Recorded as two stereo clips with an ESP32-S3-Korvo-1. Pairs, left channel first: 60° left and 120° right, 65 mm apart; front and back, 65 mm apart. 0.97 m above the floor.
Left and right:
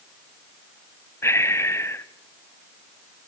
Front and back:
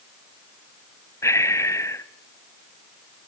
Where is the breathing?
25° left, 1.3 m.